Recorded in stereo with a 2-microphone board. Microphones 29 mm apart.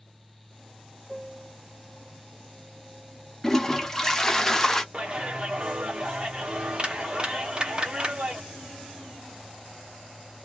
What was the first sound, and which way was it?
A piano, 15° right (ahead or behind).